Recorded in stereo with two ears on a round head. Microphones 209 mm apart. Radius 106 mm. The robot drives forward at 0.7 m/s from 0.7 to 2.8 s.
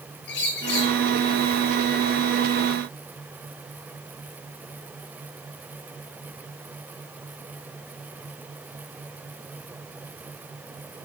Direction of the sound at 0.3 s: 50° left (ahead or behind).